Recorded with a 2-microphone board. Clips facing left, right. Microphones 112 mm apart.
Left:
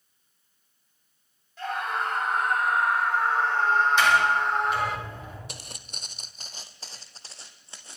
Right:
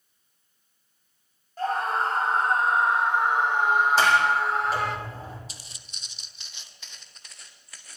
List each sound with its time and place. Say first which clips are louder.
1.6 s a scream: right 4 dB; 40° right (ahead or behind), 4 m; by 5.0 s centre (ahead or behind), 3.5 m
4.0 s a sliding door: right 1 dB; 35° right (ahead or behind), 7 m
5.5 s footsteps: left 6 dB; 60° left (ahead or behind), 1.0 m; by 8.0 s 25° left (ahead or behind), 2.5 m